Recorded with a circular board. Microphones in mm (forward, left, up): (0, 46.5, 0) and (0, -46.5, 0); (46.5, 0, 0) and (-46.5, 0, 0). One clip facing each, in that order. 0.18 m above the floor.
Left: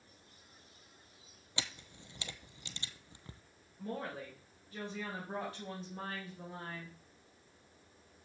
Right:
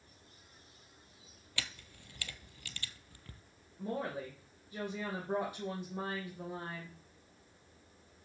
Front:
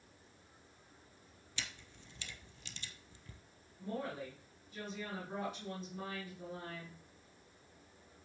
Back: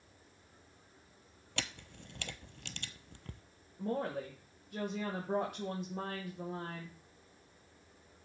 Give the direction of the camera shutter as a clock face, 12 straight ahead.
7 o'clock.